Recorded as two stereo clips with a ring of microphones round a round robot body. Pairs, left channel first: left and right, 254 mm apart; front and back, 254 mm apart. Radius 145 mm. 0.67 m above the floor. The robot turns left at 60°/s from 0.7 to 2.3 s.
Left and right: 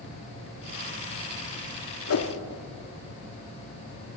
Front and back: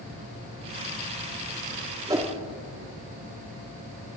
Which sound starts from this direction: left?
A whoosh, at 2.1 s.